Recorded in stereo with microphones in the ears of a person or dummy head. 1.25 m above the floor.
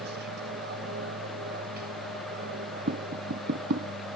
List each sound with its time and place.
0.0 s an aircraft: 55° right (ahead or behind); by 4.2 s 45° right (ahead or behind)
2.9 s tapping: 50° right (ahead or behind)